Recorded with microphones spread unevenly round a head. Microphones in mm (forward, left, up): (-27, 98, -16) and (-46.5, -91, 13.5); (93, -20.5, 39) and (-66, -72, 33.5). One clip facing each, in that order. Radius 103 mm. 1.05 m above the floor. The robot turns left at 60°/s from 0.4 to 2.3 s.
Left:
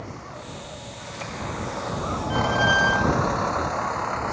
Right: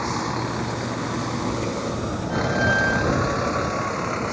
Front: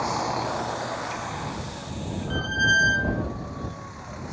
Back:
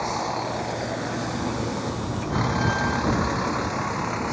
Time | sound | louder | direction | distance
0.0 | a vehicle | right 11 dB, even | 75° right | ?
2.3 | a squeak | right 1 dB, back 7 dB | 30° left | ?